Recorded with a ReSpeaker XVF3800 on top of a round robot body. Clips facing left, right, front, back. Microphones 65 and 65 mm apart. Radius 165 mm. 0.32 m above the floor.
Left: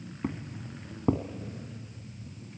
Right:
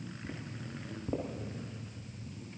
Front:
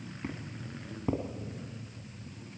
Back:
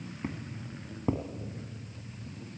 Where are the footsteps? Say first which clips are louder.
Left 11 dB, back 1 dB; 110° left, 1.6 m.